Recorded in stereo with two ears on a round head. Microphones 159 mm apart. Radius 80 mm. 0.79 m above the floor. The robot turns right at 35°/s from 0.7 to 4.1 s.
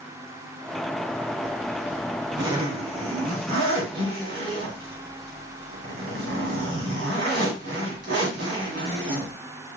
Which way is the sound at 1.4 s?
Straight behind.